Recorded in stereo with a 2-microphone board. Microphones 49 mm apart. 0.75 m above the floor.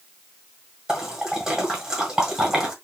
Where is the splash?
10° right (ahead or behind), 1.6 m.